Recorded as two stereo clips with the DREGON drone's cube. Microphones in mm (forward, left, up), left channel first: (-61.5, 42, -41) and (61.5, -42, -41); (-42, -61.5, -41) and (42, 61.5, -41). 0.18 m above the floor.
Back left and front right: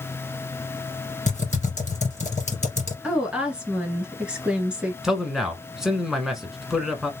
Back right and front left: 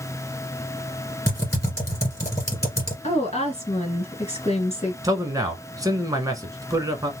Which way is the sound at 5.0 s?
45° left.